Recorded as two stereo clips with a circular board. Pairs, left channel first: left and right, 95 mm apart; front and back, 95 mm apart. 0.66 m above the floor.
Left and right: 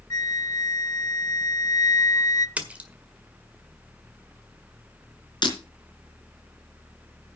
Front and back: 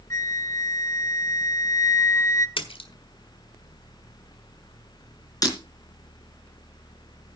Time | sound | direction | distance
0.1 | a flute | 50° left | 0.8 m
2.6 | a splash | 15° right | 1.6 m
5.4 | breaking glass | 50° left | 3.5 m